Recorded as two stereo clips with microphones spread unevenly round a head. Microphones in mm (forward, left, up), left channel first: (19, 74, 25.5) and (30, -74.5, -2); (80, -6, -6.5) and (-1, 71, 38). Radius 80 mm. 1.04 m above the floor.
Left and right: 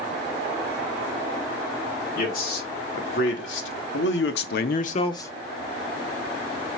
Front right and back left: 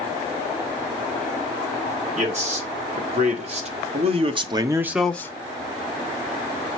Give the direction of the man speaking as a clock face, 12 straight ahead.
8 o'clock.